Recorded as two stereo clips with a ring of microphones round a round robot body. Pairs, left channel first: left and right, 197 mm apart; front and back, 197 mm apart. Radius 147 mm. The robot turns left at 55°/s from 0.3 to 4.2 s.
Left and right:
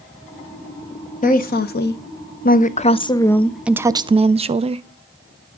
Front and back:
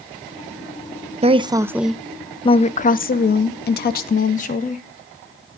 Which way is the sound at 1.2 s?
130° left.